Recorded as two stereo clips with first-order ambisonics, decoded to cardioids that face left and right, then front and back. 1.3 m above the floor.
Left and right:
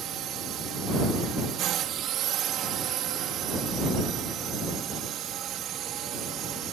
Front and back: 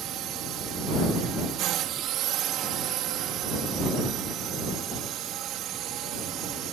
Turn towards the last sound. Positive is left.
turn(degrees=-135)